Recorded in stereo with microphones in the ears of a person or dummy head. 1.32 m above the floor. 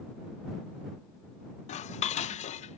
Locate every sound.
1.7 s dishes clattering: 30° left (ahead or behind)